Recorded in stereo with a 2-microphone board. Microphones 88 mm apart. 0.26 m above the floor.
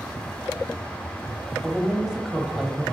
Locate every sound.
1.6 s a woman speaking: 10° right (ahead or behind), 1.0 m